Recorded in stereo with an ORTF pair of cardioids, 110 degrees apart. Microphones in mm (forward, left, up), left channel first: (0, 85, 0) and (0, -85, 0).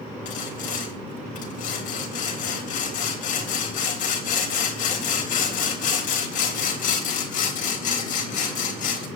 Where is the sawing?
55° left, 3.5 m.